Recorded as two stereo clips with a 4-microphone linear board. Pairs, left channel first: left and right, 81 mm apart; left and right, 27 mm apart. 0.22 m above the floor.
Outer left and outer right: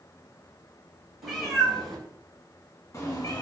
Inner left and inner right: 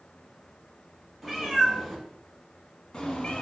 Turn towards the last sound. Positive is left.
turn(degrees=60)  # may be behind; listen again after turning